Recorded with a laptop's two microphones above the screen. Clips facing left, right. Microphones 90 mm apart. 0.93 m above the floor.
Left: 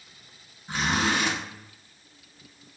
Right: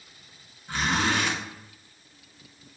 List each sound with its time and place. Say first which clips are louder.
0.7 s a zipper: even; 20° left (ahead or behind), 1.8 m